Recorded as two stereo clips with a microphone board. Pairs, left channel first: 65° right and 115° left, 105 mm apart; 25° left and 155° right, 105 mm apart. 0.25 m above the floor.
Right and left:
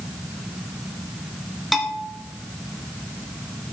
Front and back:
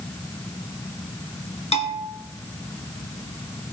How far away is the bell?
About 1.9 m.